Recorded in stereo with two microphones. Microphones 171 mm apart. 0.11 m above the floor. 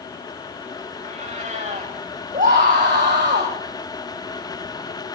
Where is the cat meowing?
45° right (ahead or behind), 9 m.